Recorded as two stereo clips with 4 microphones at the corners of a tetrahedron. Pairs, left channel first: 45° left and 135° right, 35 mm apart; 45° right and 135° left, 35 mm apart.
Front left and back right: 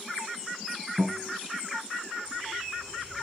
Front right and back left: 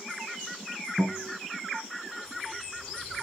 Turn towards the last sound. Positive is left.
turn(degrees=-135)